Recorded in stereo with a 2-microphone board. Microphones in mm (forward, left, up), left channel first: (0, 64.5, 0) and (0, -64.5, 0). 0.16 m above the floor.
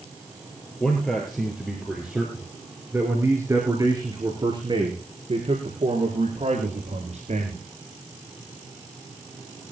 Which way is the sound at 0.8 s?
5° left (ahead or behind).